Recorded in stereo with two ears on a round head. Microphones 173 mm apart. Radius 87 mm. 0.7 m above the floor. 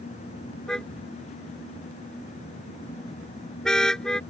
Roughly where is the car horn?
Centre.